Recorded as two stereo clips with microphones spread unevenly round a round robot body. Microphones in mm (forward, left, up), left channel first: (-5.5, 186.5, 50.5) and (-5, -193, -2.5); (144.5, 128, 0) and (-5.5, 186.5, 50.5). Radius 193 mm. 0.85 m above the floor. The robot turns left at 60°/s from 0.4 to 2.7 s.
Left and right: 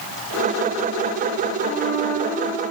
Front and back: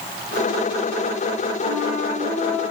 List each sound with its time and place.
1.6 s a flute: 30° left, 6 m; by 2.6 s 30° right, 6 m